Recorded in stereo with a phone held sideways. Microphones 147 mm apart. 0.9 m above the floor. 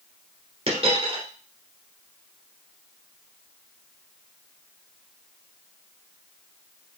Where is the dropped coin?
45° right (ahead or behind), 1.3 m.